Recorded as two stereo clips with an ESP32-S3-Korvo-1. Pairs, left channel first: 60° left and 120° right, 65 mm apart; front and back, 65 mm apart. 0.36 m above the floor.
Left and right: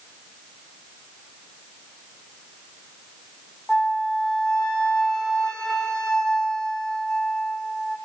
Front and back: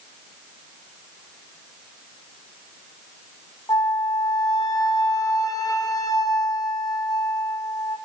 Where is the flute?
20° right, 3 m.